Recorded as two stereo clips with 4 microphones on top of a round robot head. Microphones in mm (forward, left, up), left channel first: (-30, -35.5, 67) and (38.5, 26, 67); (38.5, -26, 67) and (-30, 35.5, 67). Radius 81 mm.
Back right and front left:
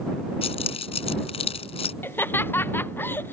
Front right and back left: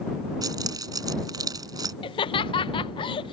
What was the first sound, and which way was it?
Keys jangling, 165° right.